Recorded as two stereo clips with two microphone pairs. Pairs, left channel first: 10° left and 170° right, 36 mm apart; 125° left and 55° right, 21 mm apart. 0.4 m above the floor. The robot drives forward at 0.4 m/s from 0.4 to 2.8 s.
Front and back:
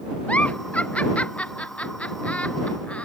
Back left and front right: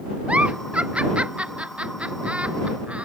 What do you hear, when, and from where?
0.3 s a giggle: 45° right; by 3.1 s 50° right